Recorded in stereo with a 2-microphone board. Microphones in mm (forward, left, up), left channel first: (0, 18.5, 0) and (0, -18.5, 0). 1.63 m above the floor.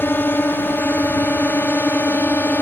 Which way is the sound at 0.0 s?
65° left (ahead or behind).